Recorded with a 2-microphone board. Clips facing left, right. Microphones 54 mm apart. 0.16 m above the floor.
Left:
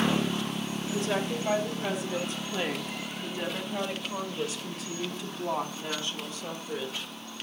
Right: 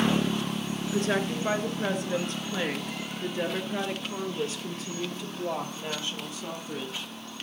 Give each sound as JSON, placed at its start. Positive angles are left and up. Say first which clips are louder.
{"t": 0.9, "sound": "a woman speaking", "louder": "right 2 dB", "side_deg": -55, "distance_m": 2.5}